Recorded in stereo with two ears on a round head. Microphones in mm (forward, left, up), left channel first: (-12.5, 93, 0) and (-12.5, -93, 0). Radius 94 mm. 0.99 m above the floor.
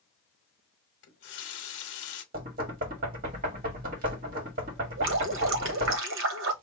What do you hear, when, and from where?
1.0 s a running tap: 65° left (ahead or behind), 1.0 m
2.3 s knocking: 40° right (ahead or behind), 1.6 m
5.0 s dripping: 65° right (ahead or behind), 1.0 m